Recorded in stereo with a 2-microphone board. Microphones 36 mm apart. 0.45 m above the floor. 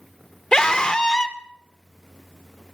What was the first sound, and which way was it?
A scream, 20° left (ahead or behind).